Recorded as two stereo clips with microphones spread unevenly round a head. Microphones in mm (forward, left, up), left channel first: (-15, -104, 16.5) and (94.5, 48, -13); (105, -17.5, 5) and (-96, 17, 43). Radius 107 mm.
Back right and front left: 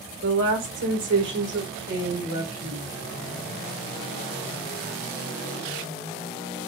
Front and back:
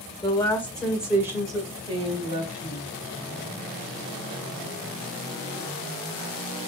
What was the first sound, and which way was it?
A woman speaking, 55° left.